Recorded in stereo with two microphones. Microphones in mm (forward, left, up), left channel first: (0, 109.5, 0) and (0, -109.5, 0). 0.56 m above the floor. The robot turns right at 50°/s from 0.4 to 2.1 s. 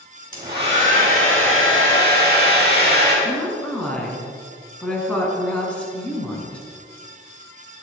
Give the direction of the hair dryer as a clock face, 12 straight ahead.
5 o'clock.